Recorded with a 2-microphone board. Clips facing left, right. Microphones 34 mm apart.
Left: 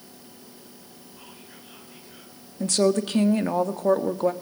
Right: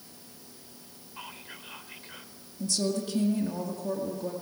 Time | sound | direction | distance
1.2 | whispering | 50° right (ahead or behind) | 3 m
2.6 | a woman speaking | 60° left (ahead or behind) | 1.8 m